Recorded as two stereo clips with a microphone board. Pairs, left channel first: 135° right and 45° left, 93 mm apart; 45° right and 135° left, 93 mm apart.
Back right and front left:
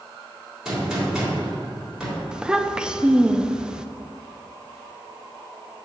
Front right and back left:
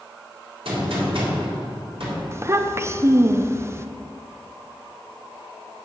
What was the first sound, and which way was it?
A gunshot, 125° left.